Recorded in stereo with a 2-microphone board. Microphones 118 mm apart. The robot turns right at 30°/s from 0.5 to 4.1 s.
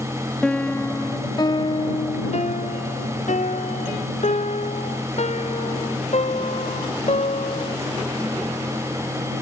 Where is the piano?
5° left; by 7.8 s 115° left.